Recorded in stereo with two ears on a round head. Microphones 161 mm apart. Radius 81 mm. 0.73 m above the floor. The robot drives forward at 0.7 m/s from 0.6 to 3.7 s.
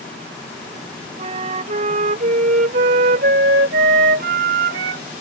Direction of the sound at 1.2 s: 35° right (ahead or behind).